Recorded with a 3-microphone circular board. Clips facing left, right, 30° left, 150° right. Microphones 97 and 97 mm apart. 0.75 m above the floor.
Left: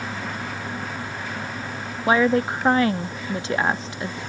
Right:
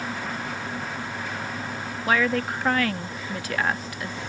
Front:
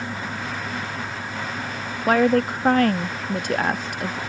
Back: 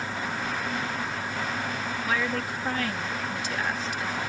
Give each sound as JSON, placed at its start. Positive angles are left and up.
{"t": 2.1, "sound": "a woman speaking", "azimuth_deg": 30}